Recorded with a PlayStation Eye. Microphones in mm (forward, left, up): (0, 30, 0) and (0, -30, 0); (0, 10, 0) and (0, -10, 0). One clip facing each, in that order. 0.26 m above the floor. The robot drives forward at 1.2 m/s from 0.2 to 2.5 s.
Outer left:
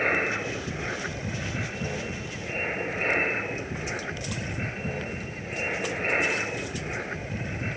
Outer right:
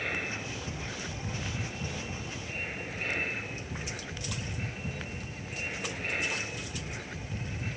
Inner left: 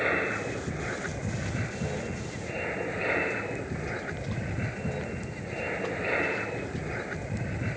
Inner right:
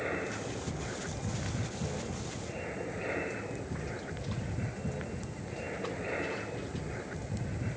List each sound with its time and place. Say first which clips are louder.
0.0 s an aircraft: outer left 9 dB, inner left 8 dB; 45° left (ahead or behind); by 7.8 s 40° left (ahead or behind)